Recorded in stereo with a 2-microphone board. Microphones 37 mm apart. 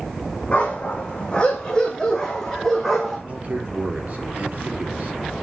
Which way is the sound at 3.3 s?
40° right (ahead or behind).